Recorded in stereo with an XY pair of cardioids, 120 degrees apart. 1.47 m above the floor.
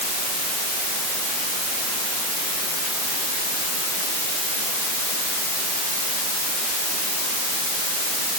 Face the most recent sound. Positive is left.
No sound to turn to.